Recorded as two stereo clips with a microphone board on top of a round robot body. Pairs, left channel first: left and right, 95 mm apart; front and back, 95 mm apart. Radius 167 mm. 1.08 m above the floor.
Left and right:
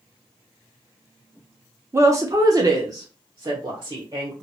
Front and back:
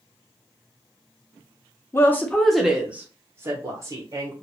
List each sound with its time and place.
1.9 s a woman speaking: 45° right, 0.8 m; by 4.3 s 145° right, 1.2 m